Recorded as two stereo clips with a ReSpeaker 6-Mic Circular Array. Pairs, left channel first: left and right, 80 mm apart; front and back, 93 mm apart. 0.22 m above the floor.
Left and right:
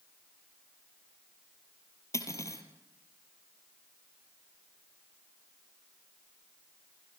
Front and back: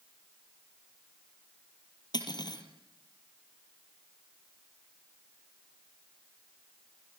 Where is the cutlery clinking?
40° left, 3.5 m.